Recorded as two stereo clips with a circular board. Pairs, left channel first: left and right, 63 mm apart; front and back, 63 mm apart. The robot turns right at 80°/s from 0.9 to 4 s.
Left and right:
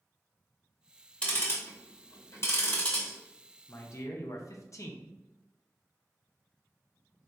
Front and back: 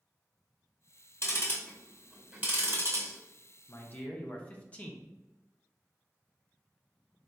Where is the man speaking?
40° left, 0.6 m; by 5.0 s 65° left, 0.6 m.